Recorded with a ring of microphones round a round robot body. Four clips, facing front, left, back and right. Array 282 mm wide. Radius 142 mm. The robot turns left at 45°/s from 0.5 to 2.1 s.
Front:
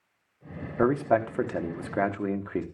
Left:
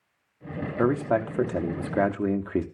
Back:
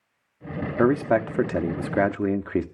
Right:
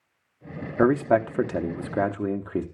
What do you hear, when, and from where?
0.8 s a man speaking: 135° right, 0.7 m; by 2.6 s 165° left, 0.7 m